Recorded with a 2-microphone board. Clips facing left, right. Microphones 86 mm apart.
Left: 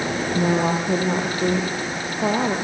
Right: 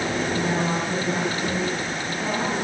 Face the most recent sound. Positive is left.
turn(degrees=50)  # may be behind; listen again after turning